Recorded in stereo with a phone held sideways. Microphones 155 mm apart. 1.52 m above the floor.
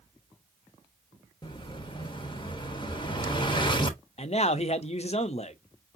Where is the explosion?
30° left (ahead or behind), 1.0 m.